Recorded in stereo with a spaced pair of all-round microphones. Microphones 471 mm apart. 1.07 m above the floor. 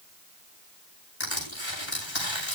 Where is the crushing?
75° left (ahead or behind), 7.5 m.